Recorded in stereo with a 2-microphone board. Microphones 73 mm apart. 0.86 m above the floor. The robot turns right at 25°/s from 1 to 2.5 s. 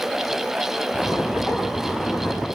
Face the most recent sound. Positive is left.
No sound to turn to.